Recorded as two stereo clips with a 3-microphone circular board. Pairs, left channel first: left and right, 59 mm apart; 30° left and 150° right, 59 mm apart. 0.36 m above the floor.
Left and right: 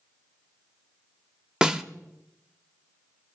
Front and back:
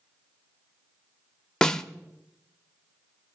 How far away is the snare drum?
About 0.6 m.